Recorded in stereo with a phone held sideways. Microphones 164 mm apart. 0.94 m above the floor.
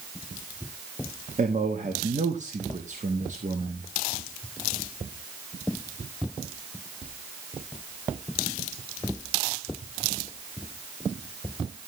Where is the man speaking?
50° right (ahead or behind), 1.1 m.